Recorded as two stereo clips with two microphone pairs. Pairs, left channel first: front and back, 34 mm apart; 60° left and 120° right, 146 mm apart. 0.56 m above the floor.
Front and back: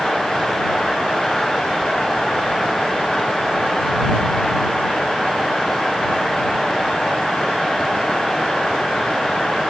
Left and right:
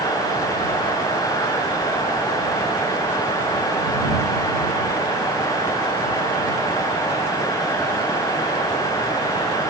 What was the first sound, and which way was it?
Only background noise.